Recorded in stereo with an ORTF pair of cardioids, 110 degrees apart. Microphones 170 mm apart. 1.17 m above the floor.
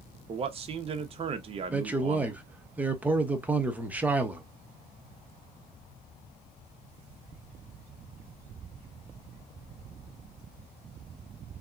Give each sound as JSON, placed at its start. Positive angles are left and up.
{"t": 0.3, "sound": "a man speaking", "azimuth_deg": -35, "distance_m": 0.6}
{"t": 1.7, "sound": "a man speaking", "azimuth_deg": -10, "distance_m": 0.7}